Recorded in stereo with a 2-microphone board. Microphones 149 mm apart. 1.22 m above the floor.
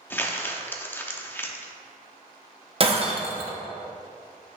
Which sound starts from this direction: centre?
Crumpling, at 0.1 s.